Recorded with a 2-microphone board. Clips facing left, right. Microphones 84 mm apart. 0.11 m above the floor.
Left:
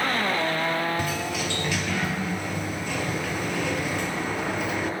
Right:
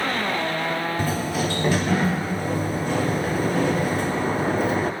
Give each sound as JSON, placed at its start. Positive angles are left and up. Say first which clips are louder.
{"t": 1.0, "sound": "a sliding door", "louder": "right 4 dB", "side_deg": -40, "distance_m": 0.7}